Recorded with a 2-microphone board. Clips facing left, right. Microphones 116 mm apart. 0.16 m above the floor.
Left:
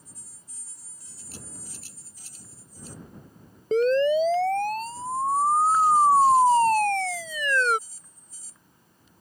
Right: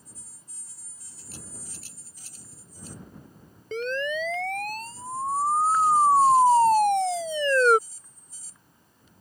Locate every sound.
3.7 s a siren: 35° left (ahead or behind); by 7.8 s 40° right (ahead or behind)